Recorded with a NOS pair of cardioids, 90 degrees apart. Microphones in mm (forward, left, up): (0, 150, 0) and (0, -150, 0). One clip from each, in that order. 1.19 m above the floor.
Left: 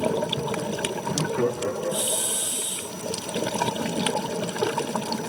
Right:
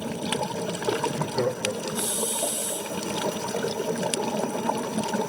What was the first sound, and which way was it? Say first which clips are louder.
Laughter: left 1 dB; 15° left.